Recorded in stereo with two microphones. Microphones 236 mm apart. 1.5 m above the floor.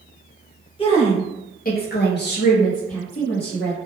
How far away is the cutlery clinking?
I don't hear cutlery clinking.